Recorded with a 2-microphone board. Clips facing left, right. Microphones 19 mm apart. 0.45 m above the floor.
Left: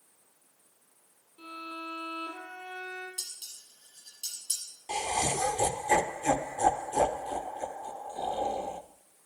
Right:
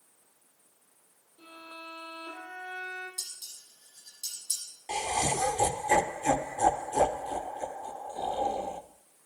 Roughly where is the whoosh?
No whoosh in this recording.